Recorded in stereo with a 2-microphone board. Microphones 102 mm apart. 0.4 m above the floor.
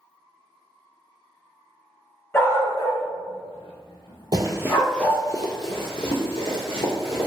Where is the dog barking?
30° left (ahead or behind), 0.8 m.